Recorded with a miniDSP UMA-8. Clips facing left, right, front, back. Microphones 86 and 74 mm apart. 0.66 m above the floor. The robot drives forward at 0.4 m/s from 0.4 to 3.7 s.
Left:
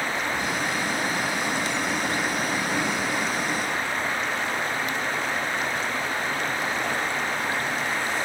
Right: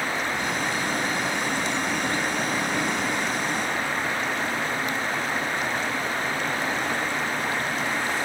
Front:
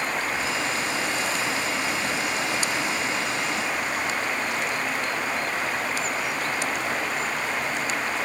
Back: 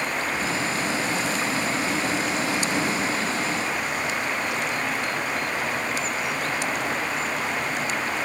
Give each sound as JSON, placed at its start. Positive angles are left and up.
{"t": 0.1, "sound": "breathing", "azimuth_deg": 60, "distance_m": 5.0}